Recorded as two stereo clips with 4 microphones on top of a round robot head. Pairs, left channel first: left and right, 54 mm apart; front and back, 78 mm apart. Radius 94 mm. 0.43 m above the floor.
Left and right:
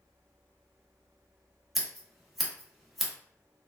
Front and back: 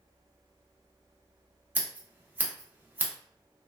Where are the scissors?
175° right, 0.9 m.